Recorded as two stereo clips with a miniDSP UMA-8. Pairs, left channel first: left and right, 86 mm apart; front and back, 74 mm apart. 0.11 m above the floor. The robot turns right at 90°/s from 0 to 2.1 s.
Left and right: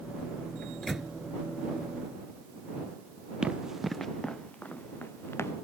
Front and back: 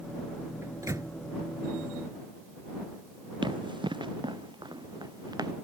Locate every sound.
0.6 s a microwave: 150° left; by 1.1 s 165° right
3.4 s running footsteps: 170° right; by 5.5 s 150° left